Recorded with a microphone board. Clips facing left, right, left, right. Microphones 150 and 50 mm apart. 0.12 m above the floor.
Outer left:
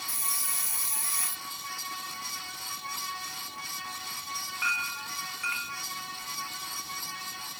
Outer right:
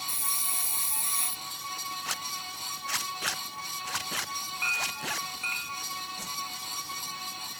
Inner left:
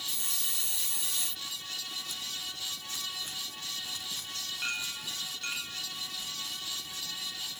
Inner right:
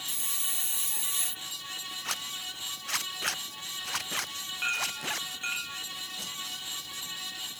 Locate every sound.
0.1 s a hiss: 30° right (ahead or behind)
2.0 s a zipper: 85° right
4.6 s a clink: 25° right (ahead or behind)
6.2 s a whoosh: 80° right